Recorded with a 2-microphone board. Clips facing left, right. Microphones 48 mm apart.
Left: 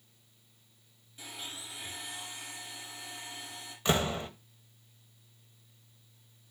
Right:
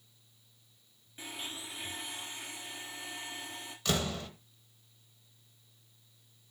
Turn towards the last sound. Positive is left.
turn(degrees=30)  # may be behind; listen again after turning